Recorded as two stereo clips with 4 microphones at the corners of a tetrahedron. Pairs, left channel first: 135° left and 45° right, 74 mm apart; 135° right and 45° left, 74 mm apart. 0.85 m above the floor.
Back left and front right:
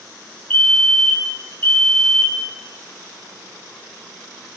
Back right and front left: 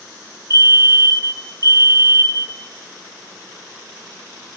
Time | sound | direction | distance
0.5 | a fire alarm | 70° left | 3.5 m